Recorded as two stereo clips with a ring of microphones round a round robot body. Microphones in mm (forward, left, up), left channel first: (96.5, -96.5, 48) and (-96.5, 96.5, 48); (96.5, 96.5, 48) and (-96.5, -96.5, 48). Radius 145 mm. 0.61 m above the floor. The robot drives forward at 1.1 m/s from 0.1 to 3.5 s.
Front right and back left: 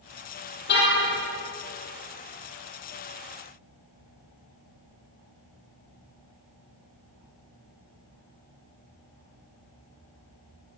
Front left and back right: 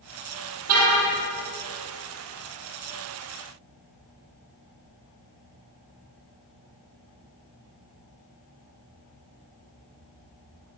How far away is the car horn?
About 9.5 m.